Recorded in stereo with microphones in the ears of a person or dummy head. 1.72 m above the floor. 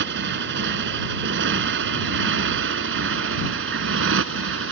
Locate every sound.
0.0 s a motorcycle: 65° right (ahead or behind); by 4.7 s 80° right